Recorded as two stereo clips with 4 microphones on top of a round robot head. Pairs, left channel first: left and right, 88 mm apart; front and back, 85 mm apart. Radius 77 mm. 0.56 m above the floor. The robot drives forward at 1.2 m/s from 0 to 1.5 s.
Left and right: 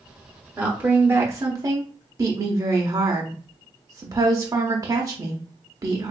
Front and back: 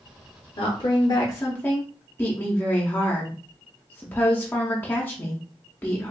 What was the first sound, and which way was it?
A woman speaking, 15° right.